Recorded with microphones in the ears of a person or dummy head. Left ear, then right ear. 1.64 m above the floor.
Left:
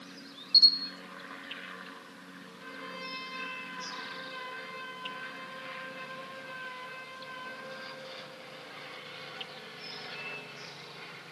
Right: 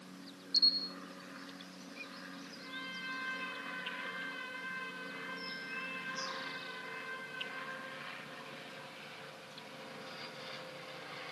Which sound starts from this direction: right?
A trumpet, at 2.6 s.